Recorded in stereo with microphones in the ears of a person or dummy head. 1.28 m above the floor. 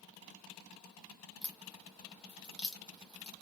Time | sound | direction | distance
1.4 | a crack | 5° left (ahead or behind) | 0.7 m